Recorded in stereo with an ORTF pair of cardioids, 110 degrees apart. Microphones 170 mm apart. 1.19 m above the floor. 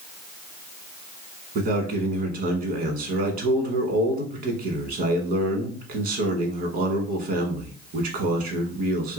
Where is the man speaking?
60° right, 1.3 m.